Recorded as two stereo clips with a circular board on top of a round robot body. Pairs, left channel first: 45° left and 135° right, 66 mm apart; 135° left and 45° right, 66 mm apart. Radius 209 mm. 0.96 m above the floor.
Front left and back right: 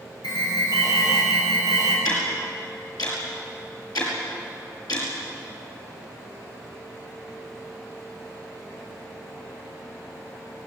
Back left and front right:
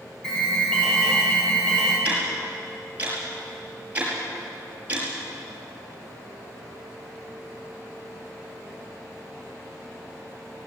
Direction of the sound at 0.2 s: 55° left.